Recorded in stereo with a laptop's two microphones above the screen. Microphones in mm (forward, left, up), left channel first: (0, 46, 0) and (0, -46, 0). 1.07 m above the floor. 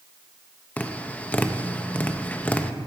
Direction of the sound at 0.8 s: 15° left (ahead or behind).